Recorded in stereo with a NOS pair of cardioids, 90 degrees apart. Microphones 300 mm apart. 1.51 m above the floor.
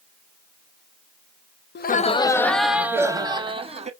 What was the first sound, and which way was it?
Laughter, 35° left.